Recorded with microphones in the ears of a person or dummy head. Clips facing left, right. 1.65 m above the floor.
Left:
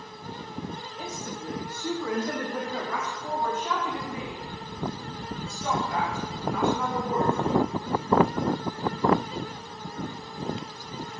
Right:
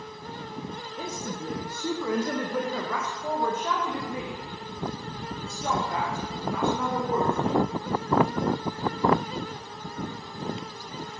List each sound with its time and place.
1.0 s a woman speaking: 70° right (ahead or behind), 1.8 m; by 7.6 s 30° right (ahead or behind), 5 m